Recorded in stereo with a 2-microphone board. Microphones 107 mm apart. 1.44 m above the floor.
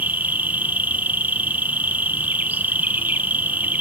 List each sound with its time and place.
0.0 s an insect: 15° right (ahead or behind), 0.8 m